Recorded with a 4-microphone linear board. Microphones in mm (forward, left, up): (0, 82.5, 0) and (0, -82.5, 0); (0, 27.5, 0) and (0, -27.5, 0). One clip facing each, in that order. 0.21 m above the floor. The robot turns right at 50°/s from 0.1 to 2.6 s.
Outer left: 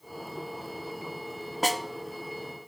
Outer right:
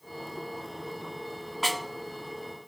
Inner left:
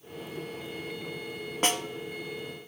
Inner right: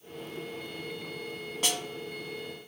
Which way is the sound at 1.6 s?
40° left (ahead or behind).